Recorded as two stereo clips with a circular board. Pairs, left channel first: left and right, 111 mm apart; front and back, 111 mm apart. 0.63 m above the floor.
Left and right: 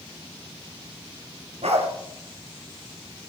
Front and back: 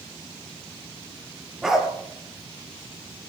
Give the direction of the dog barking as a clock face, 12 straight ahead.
3 o'clock.